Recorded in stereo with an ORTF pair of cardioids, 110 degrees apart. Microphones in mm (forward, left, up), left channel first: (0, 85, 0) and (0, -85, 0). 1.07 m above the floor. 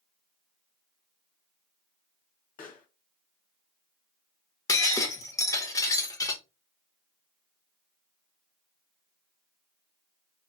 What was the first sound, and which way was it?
A pop, 55° left.